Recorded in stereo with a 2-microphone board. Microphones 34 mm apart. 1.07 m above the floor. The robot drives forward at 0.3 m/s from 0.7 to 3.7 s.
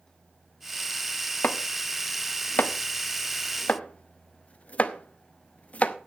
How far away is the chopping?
About 0.6 m.